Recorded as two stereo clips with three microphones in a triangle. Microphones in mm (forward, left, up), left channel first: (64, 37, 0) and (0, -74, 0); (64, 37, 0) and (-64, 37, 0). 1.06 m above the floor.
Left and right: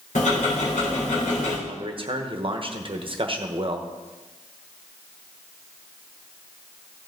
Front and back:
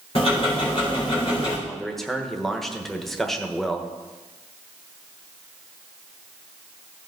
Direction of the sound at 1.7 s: 85° right.